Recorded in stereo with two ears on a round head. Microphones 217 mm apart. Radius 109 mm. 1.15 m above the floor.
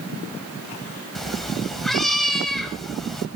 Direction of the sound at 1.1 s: Centre (ahead or behind).